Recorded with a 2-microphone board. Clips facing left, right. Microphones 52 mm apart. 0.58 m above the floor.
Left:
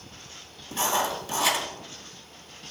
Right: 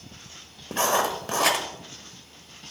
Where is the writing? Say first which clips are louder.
Right 3 dB; 60° right (ahead or behind), 1.4 m.